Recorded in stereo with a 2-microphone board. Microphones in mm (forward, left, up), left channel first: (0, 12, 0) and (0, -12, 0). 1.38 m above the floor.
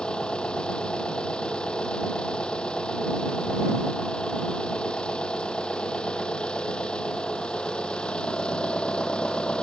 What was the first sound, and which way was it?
An engine running, 35° left (ahead or behind).